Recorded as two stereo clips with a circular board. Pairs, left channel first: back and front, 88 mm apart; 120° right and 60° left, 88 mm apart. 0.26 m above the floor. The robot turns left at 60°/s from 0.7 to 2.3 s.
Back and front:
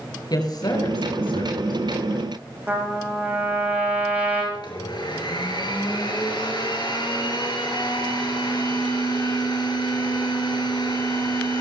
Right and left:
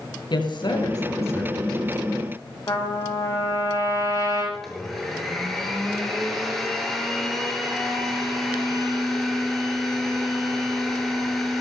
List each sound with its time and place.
0.3 s a woman speaking: 145° right, 5.5 m; by 1.8 s 150° left, 5.5 m
2.7 s a trumpet: 70° right, 5.5 m
4.5 s a blender: 155° left, 5 m